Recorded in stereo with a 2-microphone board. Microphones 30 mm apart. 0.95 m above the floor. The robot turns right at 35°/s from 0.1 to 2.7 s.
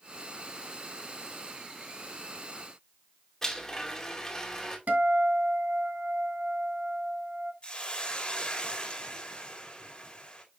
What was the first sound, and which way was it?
A blender, 15° left (ahead or behind).